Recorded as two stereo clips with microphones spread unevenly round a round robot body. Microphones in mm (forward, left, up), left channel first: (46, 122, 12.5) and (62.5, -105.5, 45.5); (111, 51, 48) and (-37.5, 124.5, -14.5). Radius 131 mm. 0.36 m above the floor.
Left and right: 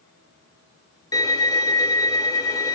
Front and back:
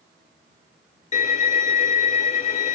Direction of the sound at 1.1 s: 20° left.